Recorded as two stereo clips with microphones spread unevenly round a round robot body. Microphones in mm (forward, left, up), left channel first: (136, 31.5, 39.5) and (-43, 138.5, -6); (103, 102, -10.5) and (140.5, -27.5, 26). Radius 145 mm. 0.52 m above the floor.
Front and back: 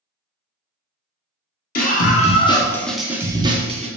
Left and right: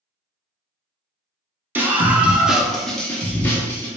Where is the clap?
No clap in this recording.